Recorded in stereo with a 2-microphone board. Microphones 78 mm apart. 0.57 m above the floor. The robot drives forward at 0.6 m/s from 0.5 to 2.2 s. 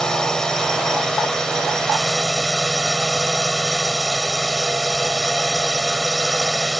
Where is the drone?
10° left (ahead or behind).